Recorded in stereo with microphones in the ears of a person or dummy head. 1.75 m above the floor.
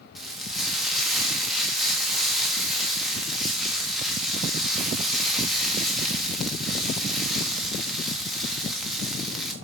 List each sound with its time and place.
0.1 s frying: centre (ahead or behind), 1.5 m